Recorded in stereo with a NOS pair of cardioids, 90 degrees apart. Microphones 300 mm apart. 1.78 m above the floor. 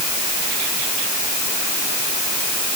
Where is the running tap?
I don't hear a running tap.